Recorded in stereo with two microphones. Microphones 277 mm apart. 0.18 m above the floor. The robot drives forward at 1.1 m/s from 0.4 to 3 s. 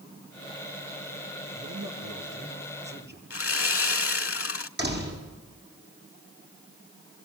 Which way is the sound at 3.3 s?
55° left (ahead or behind).